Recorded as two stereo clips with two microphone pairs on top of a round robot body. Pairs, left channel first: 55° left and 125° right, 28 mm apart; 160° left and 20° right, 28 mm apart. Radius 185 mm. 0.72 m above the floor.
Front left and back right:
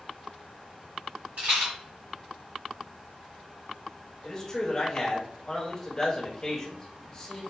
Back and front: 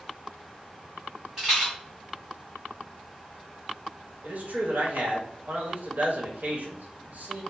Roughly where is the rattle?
Right.